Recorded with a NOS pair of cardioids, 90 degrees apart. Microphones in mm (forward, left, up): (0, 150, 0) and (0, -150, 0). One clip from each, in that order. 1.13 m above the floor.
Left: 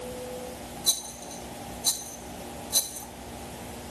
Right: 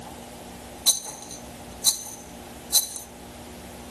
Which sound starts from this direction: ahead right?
A rattle, at 0.9 s.